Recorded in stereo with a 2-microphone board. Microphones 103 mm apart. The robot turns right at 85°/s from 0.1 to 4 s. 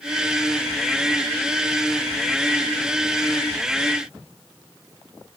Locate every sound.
Only background noise.